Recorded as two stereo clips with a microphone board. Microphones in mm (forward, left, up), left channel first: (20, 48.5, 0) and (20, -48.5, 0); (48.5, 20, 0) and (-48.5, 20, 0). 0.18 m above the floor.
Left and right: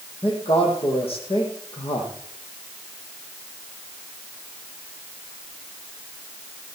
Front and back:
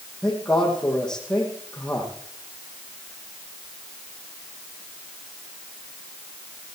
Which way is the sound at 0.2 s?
85° left.